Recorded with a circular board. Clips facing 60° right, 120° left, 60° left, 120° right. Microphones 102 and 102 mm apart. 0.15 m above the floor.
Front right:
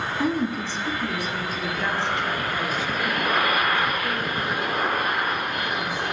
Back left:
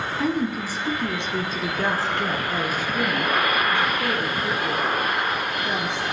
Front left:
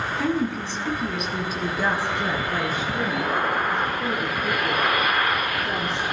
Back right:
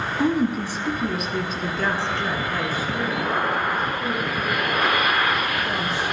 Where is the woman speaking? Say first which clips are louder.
Even, back right 4 dB; 140° right, 1.1 m; by 6.0 s 115° left, 3 m.